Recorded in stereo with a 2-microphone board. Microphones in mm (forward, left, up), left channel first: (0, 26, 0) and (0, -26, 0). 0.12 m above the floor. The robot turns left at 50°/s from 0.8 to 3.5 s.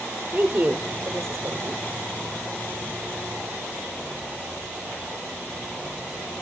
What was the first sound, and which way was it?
A woman speaking, 35° right.